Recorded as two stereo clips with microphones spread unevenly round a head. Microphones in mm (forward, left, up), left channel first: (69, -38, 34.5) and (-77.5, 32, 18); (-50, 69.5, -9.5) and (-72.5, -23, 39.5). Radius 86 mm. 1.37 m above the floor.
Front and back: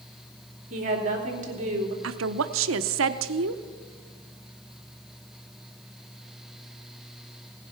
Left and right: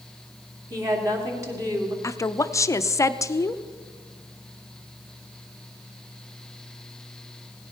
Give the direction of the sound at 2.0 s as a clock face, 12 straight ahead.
7 o'clock.